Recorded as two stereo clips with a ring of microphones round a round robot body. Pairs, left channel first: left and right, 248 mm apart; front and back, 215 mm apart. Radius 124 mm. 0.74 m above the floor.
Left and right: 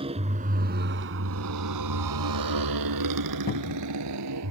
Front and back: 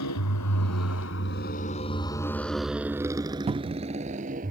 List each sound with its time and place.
0.0 s a motorcycle: 20° right; by 4.5 s 120° right
3.5 s a cupboard door: 130° left